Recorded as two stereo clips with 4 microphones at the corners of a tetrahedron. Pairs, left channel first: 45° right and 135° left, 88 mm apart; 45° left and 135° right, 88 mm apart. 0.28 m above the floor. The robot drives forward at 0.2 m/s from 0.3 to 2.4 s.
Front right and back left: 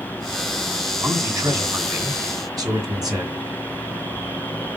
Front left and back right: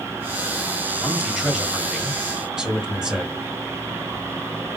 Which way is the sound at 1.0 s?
140° left.